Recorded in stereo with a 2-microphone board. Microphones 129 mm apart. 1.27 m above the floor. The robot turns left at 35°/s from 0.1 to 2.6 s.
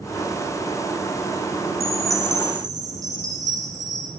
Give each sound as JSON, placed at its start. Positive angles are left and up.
{"t": 1.8, "sound": "a chime", "side_deg": -55, "distance_m": 9.5}